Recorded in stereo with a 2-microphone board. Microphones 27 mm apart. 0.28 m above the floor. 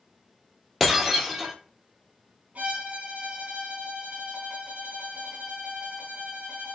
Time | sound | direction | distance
0.8 | breaking glass | 5° left (ahead or behind) | 1.2 m
2.5 | a violin | 55° right (ahead or behind) | 1.5 m